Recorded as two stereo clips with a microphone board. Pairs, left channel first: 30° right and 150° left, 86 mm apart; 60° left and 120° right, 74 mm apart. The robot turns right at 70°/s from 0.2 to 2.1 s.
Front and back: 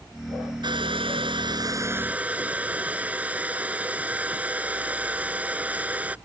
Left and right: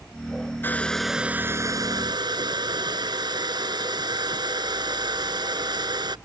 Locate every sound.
0.6 s a hair dryer: 120° left; by 6.2 s 135° right